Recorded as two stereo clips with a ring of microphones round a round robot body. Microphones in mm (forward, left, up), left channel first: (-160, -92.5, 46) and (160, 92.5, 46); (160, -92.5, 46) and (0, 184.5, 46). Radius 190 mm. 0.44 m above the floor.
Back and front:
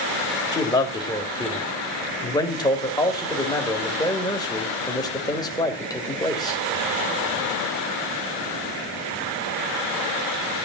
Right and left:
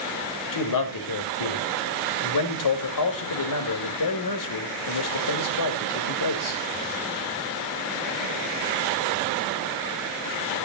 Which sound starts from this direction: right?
A man speaking, at 0.5 s.